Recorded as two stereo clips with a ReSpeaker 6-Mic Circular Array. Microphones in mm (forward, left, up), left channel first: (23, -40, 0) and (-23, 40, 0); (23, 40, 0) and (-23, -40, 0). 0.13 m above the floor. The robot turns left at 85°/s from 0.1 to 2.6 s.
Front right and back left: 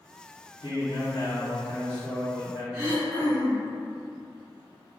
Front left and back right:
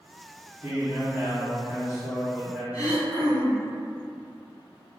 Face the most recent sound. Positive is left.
turn(degrees=65)